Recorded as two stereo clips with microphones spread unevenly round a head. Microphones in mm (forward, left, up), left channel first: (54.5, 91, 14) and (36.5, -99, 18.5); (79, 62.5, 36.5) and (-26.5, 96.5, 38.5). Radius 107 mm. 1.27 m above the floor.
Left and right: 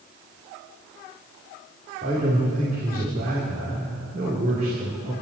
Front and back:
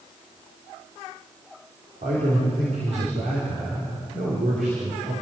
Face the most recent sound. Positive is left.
turn(degrees=-155)